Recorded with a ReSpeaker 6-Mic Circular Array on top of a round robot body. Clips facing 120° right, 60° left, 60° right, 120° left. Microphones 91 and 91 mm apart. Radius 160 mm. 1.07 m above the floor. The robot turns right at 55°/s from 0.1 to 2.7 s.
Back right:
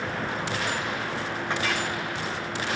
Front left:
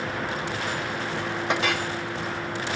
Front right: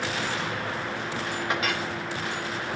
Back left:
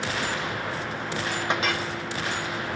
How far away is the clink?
About 1.7 m.